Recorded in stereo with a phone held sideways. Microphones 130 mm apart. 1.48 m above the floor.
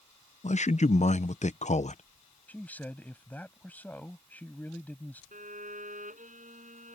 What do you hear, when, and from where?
0.4 s a man speaking: 60° left (ahead or behind)
2.5 s a man speaking: 10° left (ahead or behind)
5.3 s a violin: 80° right